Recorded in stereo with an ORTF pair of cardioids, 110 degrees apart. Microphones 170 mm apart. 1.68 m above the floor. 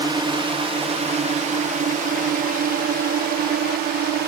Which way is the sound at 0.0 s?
25° right.